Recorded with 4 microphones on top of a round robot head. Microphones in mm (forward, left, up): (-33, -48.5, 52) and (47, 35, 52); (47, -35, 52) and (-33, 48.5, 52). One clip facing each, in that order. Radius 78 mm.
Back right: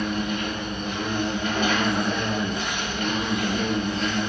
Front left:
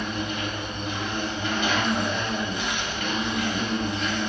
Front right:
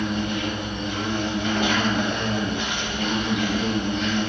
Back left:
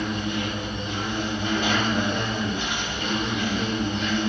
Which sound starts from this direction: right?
An insect, at 0.0 s.